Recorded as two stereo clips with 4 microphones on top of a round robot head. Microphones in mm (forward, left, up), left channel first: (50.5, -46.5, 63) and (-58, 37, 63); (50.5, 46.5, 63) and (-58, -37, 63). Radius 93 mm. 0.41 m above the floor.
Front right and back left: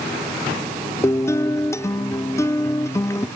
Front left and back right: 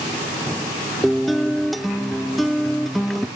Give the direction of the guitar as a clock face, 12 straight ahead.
2 o'clock.